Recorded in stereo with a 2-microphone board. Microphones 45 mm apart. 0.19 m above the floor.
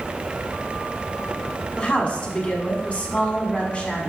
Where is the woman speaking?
30° left (ahead or behind), 1.4 m.